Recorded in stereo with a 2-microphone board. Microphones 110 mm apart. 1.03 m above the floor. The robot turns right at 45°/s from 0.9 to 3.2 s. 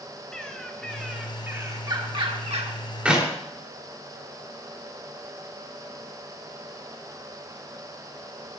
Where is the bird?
175° left, 1.6 m; by 2.8 s 100° right, 1.6 m.